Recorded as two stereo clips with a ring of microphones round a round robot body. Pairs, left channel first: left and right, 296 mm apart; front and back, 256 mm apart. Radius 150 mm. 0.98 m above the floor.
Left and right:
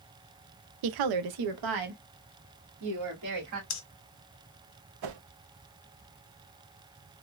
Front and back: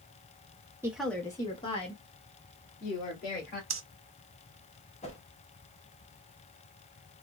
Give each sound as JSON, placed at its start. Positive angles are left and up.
{"t": 0.8, "sound": "a woman speaking", "azimuth_deg": -100, "distance_m": 0.5}
{"t": 3.7, "sound": "breathing", "azimuth_deg": 140, "distance_m": 0.8}
{"t": 5.0, "sound": "a whoosh", "azimuth_deg": -70, "distance_m": 0.6}